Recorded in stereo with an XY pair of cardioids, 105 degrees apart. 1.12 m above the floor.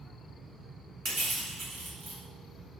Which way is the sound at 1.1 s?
60° right.